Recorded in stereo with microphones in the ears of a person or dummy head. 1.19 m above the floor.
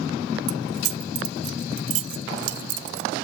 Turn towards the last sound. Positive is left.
turn(degrees=-65)  # may be behind; listen again after turning